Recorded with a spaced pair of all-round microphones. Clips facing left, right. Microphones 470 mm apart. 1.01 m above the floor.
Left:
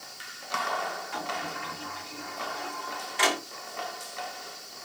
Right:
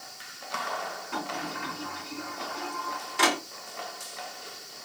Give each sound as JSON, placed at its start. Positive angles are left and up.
{"t": 1.1, "sound": "a sliding door", "side_deg": -60, "distance_m": 1.8}